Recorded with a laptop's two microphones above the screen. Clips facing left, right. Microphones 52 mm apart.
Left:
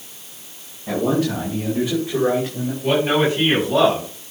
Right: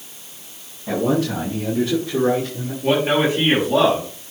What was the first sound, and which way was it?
A man speaking, centre (ahead or behind).